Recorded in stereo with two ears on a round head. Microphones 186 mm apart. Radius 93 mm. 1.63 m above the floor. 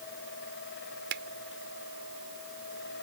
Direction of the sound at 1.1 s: 60° right (ahead or behind).